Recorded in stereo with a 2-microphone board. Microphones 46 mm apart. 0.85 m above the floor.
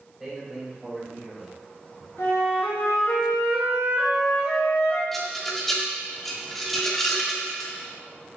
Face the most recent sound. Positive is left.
turn(degrees=5)  # may be behind; listen again after turning